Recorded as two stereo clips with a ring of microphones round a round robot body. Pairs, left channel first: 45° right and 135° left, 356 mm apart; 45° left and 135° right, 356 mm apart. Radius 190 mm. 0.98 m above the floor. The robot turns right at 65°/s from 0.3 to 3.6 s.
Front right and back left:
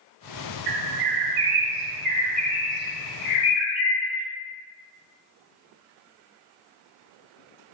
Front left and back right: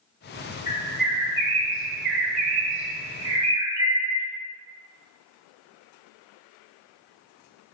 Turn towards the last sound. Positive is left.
turn(degrees=-55)